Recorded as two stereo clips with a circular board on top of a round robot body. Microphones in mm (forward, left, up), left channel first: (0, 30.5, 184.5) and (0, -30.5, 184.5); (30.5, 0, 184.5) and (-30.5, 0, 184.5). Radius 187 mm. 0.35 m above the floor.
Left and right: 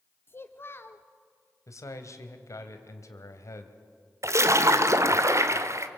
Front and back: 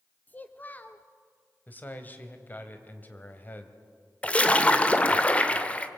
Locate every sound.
0.3 s a child speaking: 55° left, 1.1 m
1.7 s a man speaking: 60° left, 3 m
4.2 s a splash: 65° right, 1.7 m